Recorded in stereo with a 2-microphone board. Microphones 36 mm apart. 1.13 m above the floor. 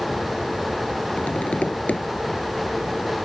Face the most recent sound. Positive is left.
turn(degrees=40)  # may be behind; listen again after turning